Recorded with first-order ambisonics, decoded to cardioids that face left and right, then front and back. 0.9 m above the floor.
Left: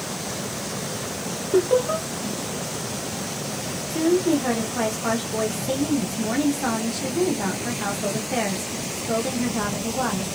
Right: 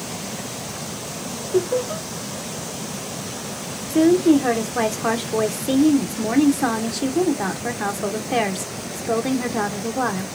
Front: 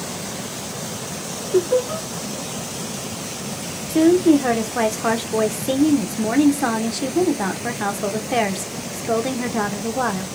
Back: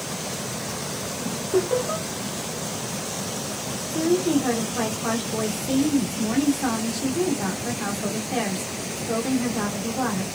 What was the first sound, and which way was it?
Laughter, 110° left.